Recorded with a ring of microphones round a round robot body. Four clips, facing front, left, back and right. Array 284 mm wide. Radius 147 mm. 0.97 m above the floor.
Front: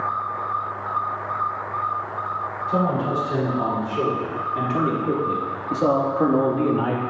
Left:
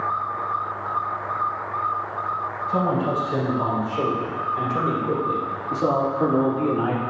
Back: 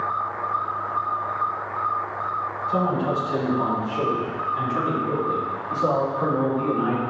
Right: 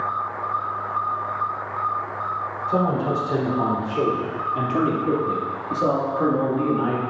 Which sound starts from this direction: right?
A man speaking, at 2.7 s.